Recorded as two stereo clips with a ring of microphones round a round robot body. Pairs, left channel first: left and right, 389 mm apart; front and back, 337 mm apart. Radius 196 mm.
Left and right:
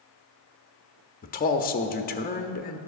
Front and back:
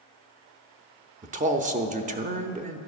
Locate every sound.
1.2 s a man speaking: 135° left, 0.7 m